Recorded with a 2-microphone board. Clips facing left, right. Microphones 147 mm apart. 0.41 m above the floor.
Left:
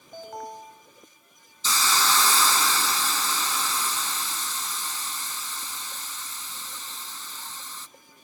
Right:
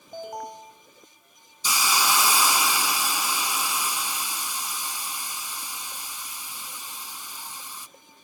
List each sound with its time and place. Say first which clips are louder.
0.1 s an alarm: right 2 dB; 20° right (ahead or behind), 3.5 m
1.6 s a hiss: even; 15° right (ahead or behind), 0.7 m